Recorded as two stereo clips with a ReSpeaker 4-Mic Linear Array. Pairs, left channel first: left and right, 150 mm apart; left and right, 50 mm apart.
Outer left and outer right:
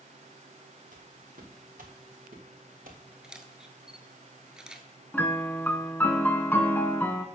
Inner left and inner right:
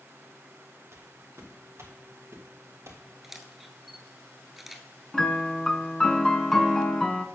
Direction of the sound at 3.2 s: 5° right (ahead or behind).